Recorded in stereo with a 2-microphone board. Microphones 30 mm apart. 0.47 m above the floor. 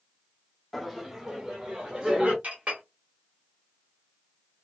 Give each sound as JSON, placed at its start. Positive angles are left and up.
{"t": 0.7, "sound": "laughter", "side_deg": 5, "distance_m": 0.8}
{"t": 2.4, "sound": "a clink", "side_deg": -50, "distance_m": 1.4}